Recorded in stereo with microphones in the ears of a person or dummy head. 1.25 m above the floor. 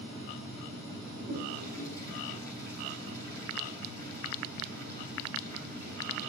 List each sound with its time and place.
1.1 s a toilet flushing: 60° right (ahead or behind), 9 m